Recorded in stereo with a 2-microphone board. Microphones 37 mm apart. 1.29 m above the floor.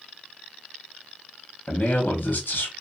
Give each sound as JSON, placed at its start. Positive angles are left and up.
{"t": 1.7, "sound": "a man speaking", "side_deg": 40, "distance_m": 1.0}